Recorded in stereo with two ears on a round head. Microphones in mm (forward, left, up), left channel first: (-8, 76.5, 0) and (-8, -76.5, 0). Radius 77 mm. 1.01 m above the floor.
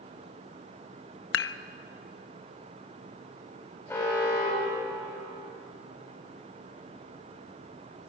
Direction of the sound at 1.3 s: 75° left (ahead or behind).